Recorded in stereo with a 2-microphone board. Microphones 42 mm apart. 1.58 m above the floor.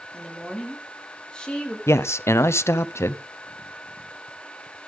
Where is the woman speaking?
15° left (ahead or behind), 3.5 m; by 1.8 s 20° left (ahead or behind), 2.5 m.